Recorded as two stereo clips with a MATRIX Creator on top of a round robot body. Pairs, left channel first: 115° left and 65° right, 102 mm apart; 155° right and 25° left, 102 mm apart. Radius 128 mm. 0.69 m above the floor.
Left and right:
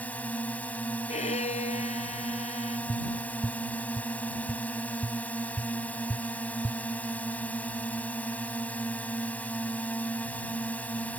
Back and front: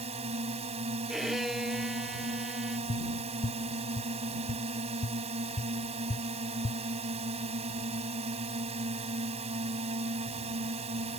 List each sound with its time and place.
0.0 s a drone: 35° left
1.1 s a violin: 110° left
2.9 s tapping: 165° right